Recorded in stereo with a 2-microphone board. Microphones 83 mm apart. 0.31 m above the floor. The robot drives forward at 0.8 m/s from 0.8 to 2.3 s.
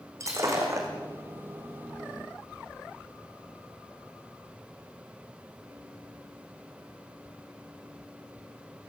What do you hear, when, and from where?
0.2 s breaking glass: 40° right (ahead or behind), 4.5 m